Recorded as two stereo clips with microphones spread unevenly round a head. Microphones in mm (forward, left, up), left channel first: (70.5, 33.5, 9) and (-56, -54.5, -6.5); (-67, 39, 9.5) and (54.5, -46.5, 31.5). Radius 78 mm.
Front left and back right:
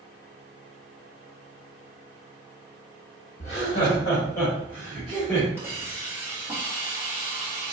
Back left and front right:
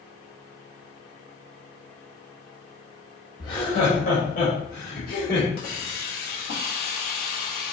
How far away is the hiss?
About 1.7 m.